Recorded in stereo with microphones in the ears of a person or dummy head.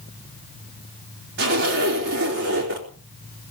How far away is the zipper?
About 3.5 m.